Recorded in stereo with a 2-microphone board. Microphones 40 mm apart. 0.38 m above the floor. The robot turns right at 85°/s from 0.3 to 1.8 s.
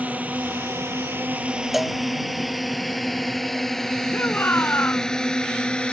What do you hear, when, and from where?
0.0 s a drone: 40° right (ahead or behind); by 5.9 s 25° left (ahead or behind)
1.7 s a cowbell: 5° right (ahead or behind)
4.1 s a shout: 55° left (ahead or behind)